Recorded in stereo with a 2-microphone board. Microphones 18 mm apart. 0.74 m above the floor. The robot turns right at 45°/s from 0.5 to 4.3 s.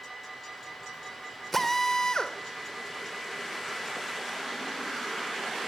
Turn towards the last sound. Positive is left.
turn(degrees=140)